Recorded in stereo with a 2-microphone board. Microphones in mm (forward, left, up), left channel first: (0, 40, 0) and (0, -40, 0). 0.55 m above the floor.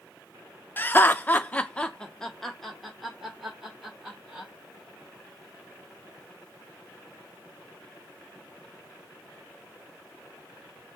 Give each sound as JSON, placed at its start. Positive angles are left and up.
{"t": 0.8, "sound": "laughter", "side_deg": 25, "distance_m": 0.7}